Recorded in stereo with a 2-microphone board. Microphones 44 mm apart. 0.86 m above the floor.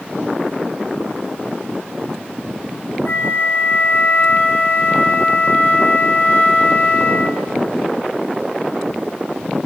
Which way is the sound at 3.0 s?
65° left (ahead or behind).